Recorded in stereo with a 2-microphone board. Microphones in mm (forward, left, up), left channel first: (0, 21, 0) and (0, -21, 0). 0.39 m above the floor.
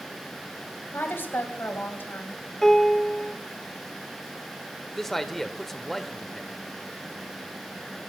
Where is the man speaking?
5° left (ahead or behind), 0.9 m.